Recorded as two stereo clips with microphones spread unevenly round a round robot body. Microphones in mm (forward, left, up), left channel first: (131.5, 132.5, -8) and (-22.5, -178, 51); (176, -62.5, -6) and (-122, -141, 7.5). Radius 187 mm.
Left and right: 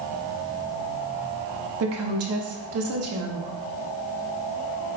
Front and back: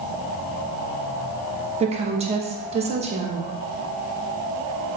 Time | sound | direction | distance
1.8 | a woman speaking | 110° right | 0.8 m